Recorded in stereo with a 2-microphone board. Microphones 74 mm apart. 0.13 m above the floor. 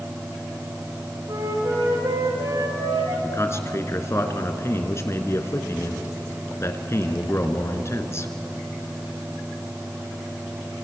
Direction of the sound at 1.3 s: 70° right (ahead or behind).